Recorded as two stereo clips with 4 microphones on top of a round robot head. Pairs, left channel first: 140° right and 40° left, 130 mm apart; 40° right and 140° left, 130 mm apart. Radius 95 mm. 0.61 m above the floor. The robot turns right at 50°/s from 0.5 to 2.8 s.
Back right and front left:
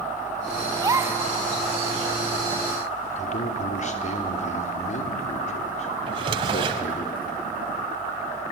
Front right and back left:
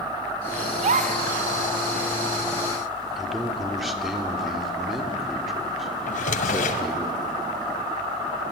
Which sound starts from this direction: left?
A gasp, at 0.8 s.